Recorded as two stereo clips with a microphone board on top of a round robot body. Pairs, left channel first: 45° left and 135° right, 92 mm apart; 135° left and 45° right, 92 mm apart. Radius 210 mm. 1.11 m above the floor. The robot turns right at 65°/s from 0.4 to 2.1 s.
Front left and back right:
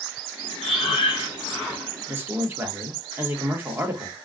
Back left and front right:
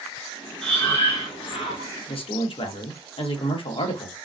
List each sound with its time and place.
0.6 s breathing: 55° left, 0.8 m; by 1.9 s 135° left, 0.8 m
2.1 s a man speaking: 155° left, 1.0 m